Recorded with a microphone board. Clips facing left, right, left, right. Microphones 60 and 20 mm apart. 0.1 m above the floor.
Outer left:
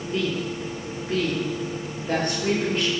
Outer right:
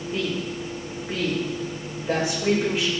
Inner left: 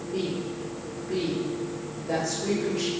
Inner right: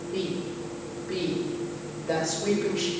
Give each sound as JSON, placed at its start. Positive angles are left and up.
{"t": 0.1, "sound": "a woman speaking", "side_deg": -5, "distance_m": 5.0}